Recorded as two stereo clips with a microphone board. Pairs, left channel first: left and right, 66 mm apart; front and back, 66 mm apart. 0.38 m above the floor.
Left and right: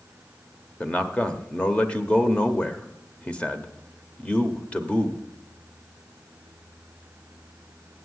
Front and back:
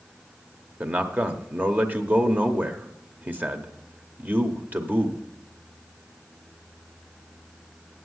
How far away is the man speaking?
About 0.9 m.